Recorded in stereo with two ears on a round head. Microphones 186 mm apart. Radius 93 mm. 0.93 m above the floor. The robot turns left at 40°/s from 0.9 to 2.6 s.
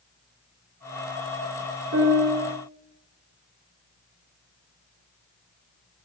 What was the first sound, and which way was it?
A piano, 70° right (ahead or behind).